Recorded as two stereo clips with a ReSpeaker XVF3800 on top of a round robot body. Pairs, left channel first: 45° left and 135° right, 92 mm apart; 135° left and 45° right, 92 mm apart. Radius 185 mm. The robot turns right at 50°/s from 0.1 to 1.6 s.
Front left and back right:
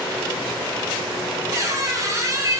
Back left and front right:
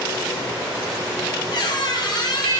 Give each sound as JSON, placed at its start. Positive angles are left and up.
{"t": 1.5, "sound": "a squeak", "azimuth_deg": 170, "distance_m": 0.8}